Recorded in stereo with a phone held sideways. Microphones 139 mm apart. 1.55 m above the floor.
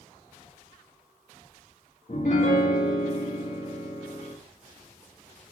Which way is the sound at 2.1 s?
55° left (ahead or behind).